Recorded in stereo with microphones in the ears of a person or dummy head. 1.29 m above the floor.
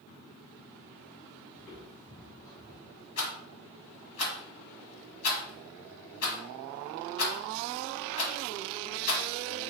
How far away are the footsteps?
About 1.9 m.